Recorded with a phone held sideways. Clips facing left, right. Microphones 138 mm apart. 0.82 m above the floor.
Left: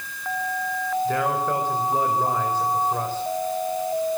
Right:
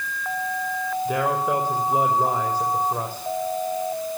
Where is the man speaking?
10° right (ahead or behind), 4 m.